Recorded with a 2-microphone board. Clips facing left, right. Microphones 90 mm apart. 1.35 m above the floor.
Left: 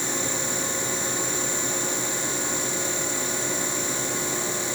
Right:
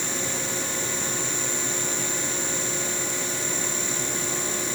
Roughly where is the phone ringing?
No phone ringing in this recording.